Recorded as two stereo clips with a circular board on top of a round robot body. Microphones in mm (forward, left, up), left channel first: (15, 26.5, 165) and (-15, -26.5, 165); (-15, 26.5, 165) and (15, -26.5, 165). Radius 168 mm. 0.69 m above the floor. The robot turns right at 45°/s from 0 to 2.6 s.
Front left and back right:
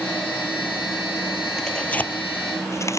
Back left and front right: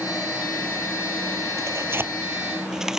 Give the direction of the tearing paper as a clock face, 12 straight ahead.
1 o'clock.